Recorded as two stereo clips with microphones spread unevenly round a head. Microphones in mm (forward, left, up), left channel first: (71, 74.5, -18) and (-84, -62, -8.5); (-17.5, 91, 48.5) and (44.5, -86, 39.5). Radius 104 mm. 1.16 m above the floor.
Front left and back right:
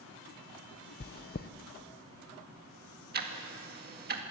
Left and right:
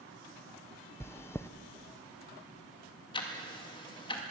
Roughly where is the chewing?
Ahead left.